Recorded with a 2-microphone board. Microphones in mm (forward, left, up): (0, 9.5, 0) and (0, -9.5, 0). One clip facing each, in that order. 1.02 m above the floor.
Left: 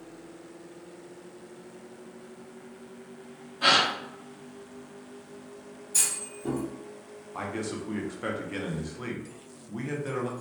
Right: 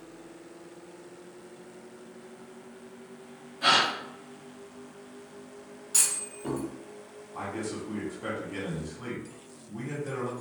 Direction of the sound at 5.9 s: 50° right (ahead or behind).